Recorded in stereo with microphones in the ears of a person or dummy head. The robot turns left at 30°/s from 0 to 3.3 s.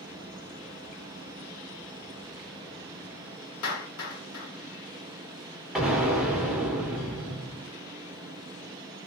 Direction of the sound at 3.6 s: 80° left.